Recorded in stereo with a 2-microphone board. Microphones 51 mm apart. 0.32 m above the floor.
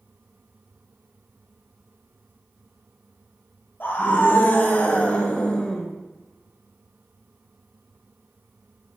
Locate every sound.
3.8 s a scream: 40° left (ahead or behind), 1.6 m; by 5.9 s 10° left (ahead or behind), 1.0 m